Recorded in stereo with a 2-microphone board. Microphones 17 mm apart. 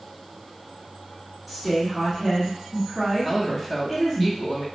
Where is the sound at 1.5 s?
15° left (ahead or behind), 1.6 m.